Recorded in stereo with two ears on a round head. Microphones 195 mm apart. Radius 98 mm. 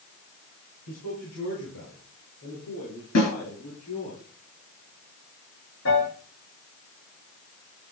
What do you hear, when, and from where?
0.9 s a man speaking: 80° left, 6.5 m
3.1 s a snare drum: 80° left, 8 m
5.8 s a piano: 65° left (ahead or behind), 8 m